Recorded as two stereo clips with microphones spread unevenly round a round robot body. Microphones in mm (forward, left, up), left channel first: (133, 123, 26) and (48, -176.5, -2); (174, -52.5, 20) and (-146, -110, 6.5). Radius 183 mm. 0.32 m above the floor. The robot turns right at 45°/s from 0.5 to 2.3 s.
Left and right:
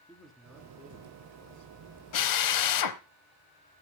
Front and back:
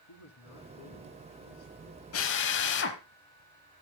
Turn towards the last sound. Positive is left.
turn(degrees=65)